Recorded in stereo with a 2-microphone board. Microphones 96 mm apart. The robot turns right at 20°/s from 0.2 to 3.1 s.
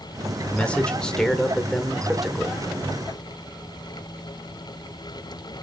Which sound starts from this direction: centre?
A man speaking, at 0.5 s.